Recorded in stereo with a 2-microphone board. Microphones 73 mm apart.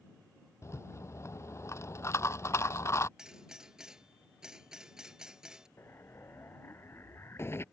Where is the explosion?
35° left (ahead or behind).